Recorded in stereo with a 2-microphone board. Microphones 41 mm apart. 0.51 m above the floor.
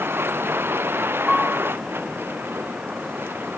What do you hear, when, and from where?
0.0 s a vehicle: 70° right (ahead or behind); by 3.6 s 60° right (ahead or behind)
1.3 s a piano: 5° left (ahead or behind)